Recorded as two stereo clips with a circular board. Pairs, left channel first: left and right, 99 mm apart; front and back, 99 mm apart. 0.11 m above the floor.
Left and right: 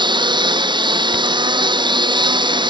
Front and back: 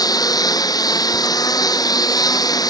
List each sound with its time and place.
0.0 s a lawn mower: 50° right